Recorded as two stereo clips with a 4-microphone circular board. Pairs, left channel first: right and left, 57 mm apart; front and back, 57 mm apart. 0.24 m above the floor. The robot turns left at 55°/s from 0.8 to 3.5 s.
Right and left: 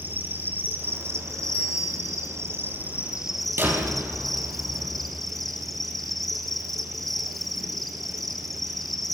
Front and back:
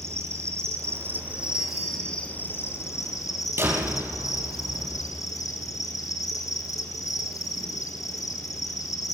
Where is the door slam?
135° left, 5.5 m.